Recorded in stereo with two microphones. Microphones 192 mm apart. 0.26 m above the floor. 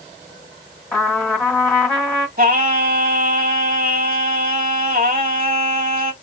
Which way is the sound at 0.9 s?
5° left (ahead or behind).